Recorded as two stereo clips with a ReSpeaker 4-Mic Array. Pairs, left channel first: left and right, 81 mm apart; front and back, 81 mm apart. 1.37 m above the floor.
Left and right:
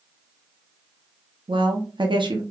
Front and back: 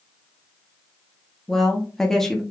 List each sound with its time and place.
1.5 s a woman speaking: 85° right, 0.6 m